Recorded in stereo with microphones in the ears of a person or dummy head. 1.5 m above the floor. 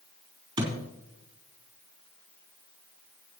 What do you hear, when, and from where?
0.6 s a thud: 25° right (ahead or behind), 4.5 m